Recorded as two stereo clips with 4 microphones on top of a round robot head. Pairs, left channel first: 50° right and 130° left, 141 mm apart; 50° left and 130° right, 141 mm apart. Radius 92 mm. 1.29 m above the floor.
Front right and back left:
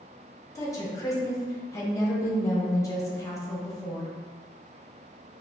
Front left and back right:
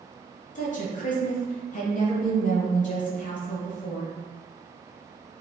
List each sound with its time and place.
0.6 s a woman speaking: 20° left, 1.0 m